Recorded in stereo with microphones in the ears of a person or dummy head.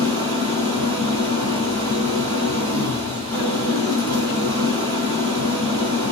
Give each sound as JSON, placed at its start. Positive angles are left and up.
{"t": 0.0, "sound": "an engine running", "side_deg": -30, "distance_m": 2.0}